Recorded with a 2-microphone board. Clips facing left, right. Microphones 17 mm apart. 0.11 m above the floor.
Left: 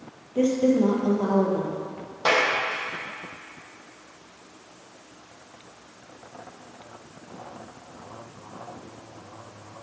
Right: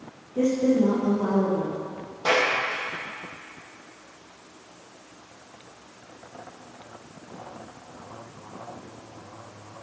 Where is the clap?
40° left (ahead or behind), 3 m.